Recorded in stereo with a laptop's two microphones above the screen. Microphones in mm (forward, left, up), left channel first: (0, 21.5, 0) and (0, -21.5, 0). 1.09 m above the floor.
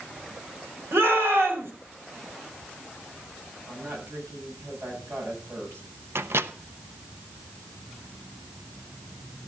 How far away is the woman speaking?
About 7.5 m.